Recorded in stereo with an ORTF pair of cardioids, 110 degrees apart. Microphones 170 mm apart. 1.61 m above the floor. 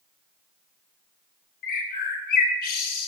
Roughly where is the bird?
Ahead left.